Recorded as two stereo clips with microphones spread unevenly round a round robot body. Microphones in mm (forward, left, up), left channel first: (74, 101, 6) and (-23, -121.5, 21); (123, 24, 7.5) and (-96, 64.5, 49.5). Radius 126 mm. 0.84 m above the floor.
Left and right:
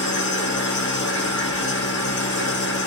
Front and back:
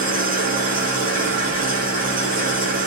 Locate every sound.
0.0 s an engine running: 115° left, 1.0 m